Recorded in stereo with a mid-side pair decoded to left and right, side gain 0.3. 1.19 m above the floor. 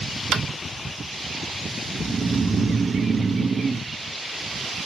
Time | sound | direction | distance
0.3 | tapping | 70° right | 0.7 m
1.9 | snoring | 50° right | 0.7 m